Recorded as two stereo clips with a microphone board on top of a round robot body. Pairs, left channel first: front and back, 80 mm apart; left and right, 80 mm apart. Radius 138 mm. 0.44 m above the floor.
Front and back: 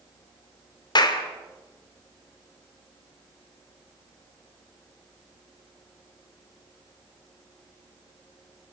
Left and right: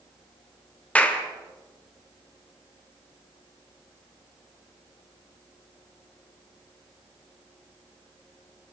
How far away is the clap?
About 2.5 m.